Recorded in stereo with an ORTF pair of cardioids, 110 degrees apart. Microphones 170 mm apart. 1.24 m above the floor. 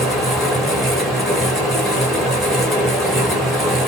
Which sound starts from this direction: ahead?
A fan, at 0.0 s.